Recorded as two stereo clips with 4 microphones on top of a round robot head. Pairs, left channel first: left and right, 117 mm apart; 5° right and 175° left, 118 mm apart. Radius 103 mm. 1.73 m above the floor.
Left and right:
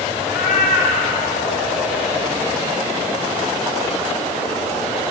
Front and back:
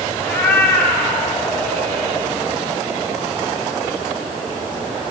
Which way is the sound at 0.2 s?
70° left.